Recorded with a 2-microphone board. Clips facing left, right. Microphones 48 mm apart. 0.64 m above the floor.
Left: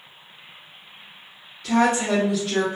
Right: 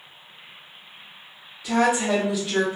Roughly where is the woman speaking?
Centre.